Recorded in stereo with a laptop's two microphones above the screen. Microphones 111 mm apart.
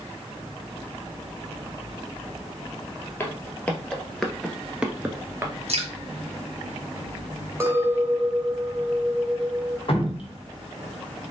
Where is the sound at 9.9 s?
55° left (ahead or behind), 1.1 m.